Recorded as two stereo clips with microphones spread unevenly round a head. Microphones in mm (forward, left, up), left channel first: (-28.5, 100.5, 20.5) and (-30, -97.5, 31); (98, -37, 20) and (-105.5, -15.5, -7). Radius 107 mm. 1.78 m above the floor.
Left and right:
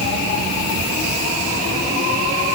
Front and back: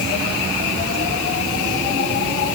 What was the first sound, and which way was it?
Only background noise.